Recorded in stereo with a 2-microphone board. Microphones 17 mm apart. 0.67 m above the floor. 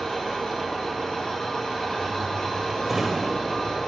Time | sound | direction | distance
0.0 | an engine running | 55° left (ahead or behind) | 4.5 m
2.9 | a drawer | 25° right (ahead or behind) | 1.5 m